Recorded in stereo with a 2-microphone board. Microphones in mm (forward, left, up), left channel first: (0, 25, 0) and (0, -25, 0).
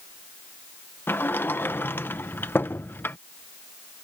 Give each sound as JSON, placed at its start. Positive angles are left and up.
{"t": 1.1, "sound": "a sliding door", "side_deg": 45}